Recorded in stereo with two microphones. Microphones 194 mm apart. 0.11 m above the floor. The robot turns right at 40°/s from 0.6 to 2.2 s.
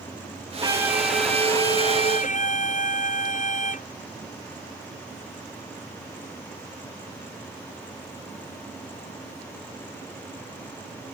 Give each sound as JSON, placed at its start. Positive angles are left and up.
{"t": 0.6, "sound": "a violin", "azimuth_deg": -20}